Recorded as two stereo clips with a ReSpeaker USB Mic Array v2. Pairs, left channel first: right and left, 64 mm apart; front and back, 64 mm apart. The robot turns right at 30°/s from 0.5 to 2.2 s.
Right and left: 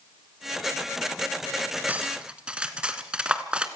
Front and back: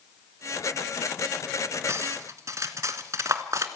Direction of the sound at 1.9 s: 150° left.